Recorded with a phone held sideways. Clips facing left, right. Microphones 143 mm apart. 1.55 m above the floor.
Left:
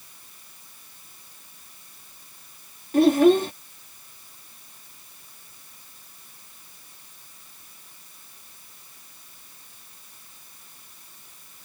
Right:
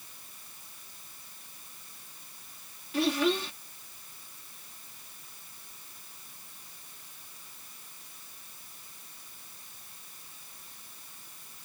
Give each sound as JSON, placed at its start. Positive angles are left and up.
{"t": 2.9, "sound": "a child speaking", "side_deg": 50}